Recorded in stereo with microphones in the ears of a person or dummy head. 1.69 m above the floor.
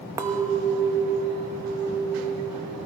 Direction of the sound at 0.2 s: 15° right (ahead or behind).